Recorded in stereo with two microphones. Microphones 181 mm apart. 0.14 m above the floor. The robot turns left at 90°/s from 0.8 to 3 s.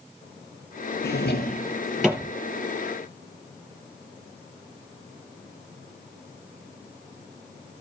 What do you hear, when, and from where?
1.0 s a drawer: 70° left (ahead or behind), 2.5 m; by 2.3 s 25° right (ahead or behind), 2.5 m